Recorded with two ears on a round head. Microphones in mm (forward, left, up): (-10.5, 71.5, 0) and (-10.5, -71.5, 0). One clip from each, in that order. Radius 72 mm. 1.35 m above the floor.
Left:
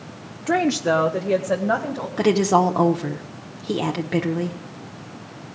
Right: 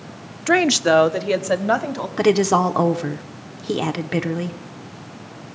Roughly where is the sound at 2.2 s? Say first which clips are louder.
Right 1 dB; centre.